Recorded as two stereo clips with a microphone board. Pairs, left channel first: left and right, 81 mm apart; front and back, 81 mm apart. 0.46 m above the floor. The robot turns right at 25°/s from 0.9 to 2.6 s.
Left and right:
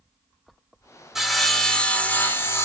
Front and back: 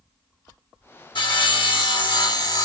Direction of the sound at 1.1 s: 5° right.